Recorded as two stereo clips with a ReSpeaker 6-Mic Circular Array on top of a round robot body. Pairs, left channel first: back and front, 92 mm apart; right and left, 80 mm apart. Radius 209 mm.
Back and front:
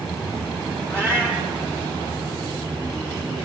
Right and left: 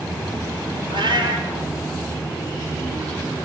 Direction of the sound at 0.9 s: 70° left.